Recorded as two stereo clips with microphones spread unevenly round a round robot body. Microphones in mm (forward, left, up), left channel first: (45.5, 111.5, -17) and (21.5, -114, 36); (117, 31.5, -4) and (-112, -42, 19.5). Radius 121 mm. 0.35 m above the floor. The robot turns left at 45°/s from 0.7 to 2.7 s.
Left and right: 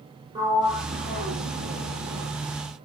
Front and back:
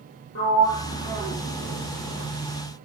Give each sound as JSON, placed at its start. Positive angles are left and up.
{"t": 0.3, "sound": "a sliding door", "azimuth_deg": -20, "distance_m": 5.0}